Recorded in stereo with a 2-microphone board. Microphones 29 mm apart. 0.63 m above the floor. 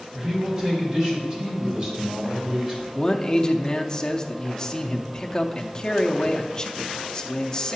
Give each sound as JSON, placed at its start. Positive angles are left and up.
{"t": 0.1, "sound": "a man speaking", "side_deg": -30, "distance_m": 2.5}
{"t": 2.9, "sound": "a man speaking", "side_deg": 20, "distance_m": 0.7}